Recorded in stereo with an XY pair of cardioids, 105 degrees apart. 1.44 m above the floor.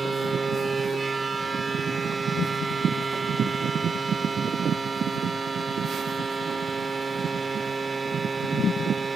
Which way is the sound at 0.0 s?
25° right.